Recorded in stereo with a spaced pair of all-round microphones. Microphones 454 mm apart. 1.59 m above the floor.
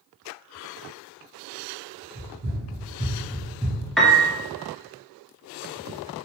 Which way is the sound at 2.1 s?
40° right (ahead or behind).